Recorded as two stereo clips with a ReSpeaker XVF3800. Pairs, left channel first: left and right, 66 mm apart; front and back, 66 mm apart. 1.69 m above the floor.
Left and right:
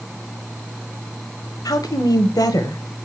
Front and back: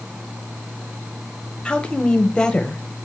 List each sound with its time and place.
1.6 s a woman speaking: 75° left, 1.2 m